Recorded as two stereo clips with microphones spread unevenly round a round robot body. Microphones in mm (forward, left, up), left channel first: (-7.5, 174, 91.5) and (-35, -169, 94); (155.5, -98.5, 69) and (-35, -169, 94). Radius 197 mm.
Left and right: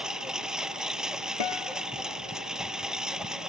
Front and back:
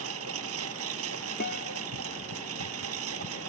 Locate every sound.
0.0 s a lawn mower: 175° left
1.4 s a guitar: 85° left